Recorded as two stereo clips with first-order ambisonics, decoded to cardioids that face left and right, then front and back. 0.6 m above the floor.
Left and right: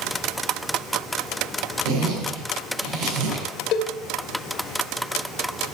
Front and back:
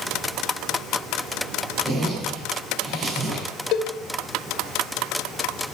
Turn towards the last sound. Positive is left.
turn(degrees=55)